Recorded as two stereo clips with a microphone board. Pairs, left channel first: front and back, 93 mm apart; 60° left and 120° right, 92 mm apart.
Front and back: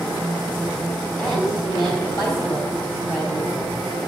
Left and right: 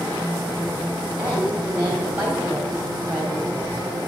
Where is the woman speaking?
50° right, 3.5 m.